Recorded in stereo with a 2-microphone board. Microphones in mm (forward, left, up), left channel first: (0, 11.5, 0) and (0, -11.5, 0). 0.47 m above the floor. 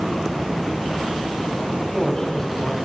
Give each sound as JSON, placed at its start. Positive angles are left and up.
{"t": 1.7, "sound": "a man speaking", "side_deg": 25, "distance_m": 1.4}